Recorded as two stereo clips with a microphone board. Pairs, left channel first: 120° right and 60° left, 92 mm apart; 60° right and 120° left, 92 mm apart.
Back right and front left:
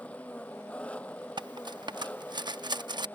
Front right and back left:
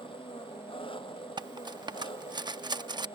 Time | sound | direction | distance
0.0 | an engine running | 45° right | ?
1.4 | cutlery clinking | 90° left | ?